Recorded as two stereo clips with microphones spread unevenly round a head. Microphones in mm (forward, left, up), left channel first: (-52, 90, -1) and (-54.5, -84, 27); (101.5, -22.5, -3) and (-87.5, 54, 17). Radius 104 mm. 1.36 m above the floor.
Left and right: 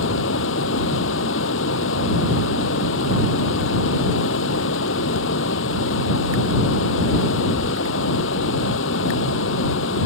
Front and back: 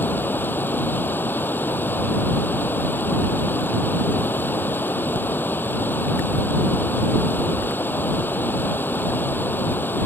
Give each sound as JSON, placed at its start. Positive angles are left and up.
{"t": 0.0, "sound": "running water", "azimuth_deg": 60}